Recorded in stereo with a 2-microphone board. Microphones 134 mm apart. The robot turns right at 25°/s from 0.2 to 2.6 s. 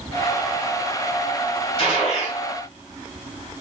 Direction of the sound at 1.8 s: 45° left (ahead or behind).